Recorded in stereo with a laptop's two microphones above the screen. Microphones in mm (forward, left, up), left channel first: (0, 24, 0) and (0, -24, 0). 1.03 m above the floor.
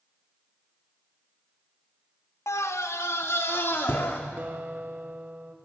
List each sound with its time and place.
2.5 s a scream: 70° left (ahead or behind), 1.2 m; by 4.2 s 45° left (ahead or behind), 2.5 m
4.4 s a guitar: 40° right (ahead or behind), 1.2 m